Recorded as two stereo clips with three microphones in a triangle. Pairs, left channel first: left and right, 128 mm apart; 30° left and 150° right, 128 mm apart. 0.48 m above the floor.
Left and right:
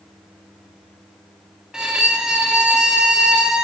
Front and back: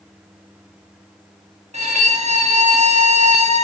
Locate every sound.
1.7 s a violin: 175° right, 0.5 m